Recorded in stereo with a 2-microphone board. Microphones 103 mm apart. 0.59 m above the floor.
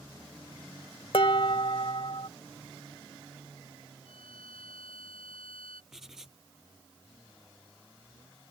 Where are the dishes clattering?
60° left (ahead or behind).